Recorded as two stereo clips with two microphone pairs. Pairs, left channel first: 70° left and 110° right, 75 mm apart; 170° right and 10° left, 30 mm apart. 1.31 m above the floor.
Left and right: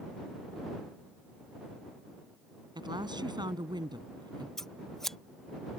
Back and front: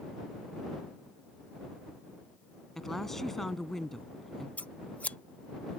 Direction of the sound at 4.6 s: 155° left.